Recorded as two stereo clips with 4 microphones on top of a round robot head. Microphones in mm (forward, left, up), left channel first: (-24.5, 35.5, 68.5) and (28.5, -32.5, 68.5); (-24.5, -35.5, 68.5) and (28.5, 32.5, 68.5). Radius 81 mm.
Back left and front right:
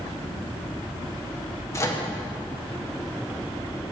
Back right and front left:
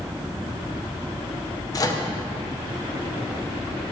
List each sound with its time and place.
1.7 s a microwave: 175° right, 1.0 m